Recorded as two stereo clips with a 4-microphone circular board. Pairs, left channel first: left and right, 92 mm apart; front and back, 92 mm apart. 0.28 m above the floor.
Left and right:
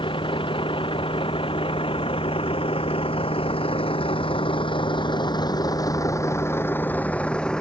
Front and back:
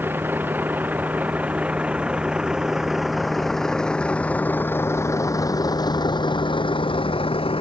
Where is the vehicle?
110° left; by 7.6 s 5° left.